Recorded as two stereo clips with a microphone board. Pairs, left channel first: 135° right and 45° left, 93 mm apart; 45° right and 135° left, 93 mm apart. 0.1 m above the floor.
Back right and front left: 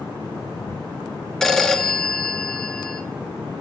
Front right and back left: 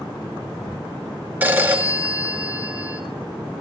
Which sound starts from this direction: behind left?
A phone ringing, at 1.4 s.